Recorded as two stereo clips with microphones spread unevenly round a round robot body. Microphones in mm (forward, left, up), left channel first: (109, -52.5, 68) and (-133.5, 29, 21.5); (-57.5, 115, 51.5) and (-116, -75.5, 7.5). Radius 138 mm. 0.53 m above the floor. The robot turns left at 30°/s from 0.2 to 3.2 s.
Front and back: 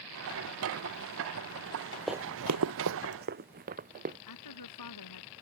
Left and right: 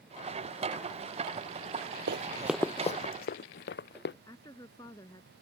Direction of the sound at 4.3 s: 5° right.